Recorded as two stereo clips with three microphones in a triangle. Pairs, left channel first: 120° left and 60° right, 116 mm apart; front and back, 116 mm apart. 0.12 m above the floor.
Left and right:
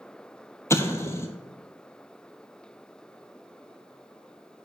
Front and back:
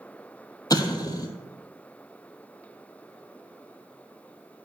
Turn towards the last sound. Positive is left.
turn(degrees=55)